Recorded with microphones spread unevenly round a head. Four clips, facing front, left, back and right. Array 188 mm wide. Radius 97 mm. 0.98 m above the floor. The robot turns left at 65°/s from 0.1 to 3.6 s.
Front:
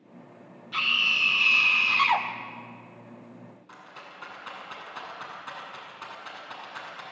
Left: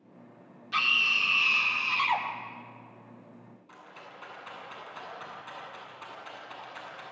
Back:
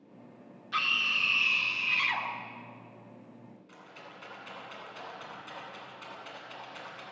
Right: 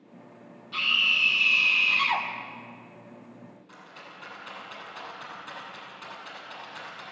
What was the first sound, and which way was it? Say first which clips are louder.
A scream: left 1 dB, front 2 dB; 100° left.